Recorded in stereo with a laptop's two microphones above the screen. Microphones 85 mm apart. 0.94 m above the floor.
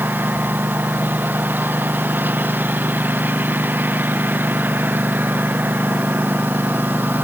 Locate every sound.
0.0 s a lawn mower: 20° right (ahead or behind)